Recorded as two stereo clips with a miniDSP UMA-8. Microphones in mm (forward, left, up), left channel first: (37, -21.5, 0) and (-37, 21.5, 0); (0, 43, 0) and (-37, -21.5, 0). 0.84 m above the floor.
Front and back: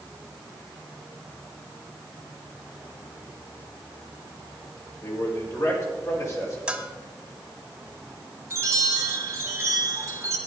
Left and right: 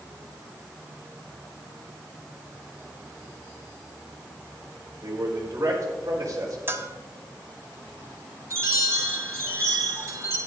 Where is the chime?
160° right, 2 m.